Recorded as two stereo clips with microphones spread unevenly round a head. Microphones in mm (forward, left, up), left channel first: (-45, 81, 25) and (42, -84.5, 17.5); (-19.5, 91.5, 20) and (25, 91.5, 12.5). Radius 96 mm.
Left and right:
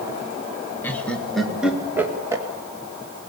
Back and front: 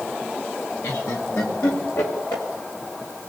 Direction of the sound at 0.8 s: 160° right.